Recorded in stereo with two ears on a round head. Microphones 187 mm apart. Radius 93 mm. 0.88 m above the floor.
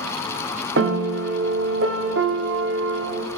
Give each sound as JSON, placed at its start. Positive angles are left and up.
{"t": 0.8, "sound": "a piano", "side_deg": -60, "distance_m": 1.0}